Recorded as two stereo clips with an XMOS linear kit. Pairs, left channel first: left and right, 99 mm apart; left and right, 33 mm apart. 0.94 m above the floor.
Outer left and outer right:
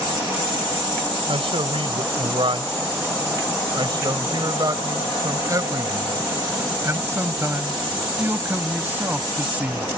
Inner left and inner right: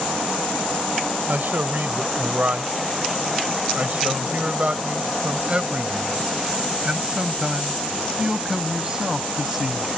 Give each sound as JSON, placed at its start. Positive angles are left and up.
{"t": 1.3, "sound": "a man speaking", "side_deg": -70}